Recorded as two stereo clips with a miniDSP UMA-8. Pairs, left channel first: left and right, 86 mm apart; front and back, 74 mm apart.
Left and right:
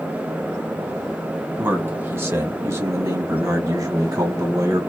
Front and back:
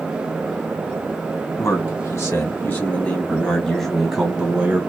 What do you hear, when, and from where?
1.6 s a man speaking: 30° right, 1.8 m; by 4.8 s 115° right, 1.5 m